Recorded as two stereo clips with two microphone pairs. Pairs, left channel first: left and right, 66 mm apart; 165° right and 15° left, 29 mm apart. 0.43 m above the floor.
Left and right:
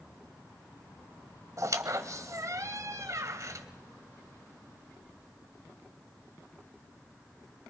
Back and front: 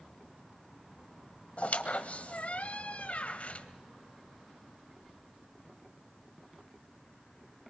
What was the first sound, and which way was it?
A squeak, 125° right.